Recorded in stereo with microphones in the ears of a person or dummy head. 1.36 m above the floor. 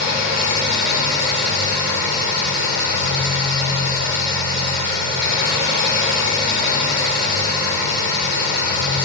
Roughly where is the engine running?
Left.